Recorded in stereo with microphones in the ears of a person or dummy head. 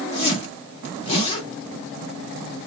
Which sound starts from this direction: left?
A zipper, at 0.1 s.